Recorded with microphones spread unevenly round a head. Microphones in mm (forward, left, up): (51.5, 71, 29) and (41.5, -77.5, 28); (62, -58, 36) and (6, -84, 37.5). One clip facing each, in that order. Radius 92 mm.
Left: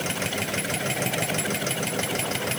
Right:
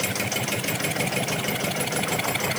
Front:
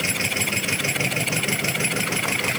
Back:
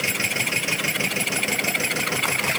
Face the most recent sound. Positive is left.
No sound to turn to.